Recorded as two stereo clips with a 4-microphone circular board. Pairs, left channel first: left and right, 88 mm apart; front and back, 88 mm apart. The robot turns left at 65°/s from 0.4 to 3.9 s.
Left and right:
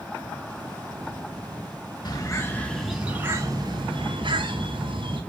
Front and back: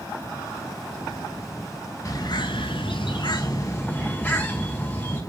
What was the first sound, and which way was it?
A bird, 55° left.